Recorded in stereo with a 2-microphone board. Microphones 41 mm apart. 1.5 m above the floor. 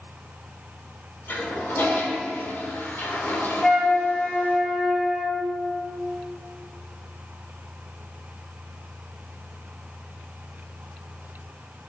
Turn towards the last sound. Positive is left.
turn(degrees=5)  # may be behind; listen again after turning